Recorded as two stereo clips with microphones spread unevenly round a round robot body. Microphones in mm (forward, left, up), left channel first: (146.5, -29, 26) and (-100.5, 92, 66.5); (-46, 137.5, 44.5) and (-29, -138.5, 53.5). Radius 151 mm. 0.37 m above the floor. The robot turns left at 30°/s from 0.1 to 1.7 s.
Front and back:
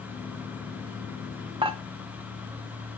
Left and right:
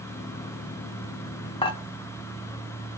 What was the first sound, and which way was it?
Dishes clattering, 95° left.